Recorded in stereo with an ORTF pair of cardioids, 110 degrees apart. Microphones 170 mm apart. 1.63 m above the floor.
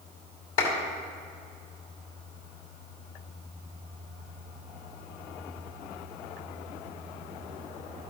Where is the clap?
65° left, 3 m.